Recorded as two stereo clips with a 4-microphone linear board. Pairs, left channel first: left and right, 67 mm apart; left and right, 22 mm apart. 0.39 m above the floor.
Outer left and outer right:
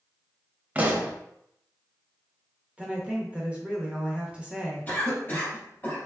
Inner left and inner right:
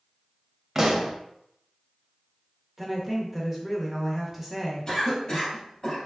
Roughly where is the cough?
Left.